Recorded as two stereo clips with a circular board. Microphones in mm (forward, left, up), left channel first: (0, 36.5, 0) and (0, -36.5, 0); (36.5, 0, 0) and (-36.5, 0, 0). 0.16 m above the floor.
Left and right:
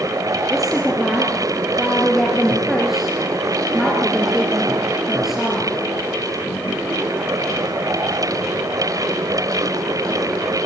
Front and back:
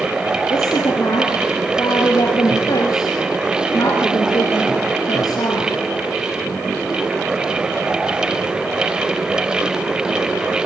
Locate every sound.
0.5 s a woman speaking: 5° right, 3.5 m